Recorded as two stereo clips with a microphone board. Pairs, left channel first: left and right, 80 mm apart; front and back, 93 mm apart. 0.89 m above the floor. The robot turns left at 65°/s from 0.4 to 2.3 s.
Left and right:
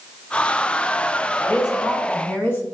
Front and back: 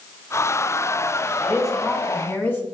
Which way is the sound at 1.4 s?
110° left.